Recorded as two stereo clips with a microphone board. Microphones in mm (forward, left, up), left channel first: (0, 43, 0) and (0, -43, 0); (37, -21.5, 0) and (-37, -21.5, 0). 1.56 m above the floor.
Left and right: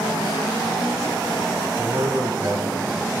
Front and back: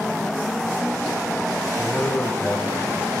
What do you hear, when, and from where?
1.7 s a man speaking: 55° right, 8 m